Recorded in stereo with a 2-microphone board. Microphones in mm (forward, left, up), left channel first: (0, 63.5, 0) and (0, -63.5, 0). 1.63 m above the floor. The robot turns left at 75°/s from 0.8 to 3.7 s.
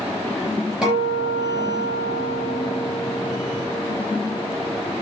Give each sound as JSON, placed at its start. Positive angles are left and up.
{"t": 0.8, "sound": "a guitar", "azimuth_deg": -5, "distance_m": 9.0}